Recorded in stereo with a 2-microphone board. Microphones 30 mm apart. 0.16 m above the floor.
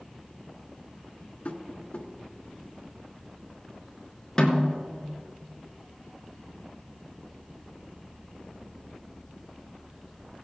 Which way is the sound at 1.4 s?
45° left (ahead or behind).